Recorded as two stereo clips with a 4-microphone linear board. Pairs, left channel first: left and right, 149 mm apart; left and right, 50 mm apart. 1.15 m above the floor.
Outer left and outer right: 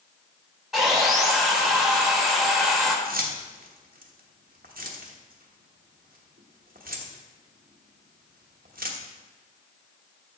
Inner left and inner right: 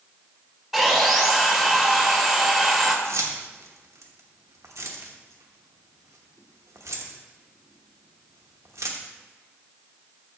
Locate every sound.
0.7 s sawing: centre (ahead or behind), 1.2 m
3.0 s keys jangling: 85° right, 1.0 m